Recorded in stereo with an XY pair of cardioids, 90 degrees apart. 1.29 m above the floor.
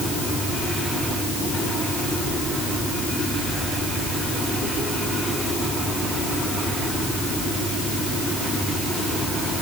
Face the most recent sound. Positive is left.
No sound to turn to.